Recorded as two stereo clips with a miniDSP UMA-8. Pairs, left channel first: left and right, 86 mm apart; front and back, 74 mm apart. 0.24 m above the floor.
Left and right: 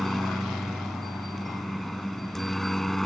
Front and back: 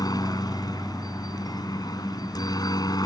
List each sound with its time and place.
0.0 s a helicopter: straight ahead